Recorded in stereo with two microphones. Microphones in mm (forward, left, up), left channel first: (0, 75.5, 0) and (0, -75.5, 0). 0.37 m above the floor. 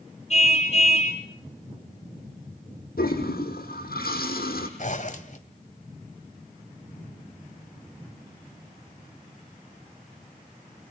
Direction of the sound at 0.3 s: 45° left (ahead or behind).